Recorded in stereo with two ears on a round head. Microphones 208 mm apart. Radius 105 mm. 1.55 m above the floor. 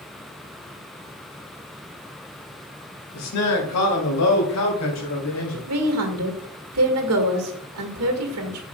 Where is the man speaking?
75° left (ahead or behind), 2.0 m.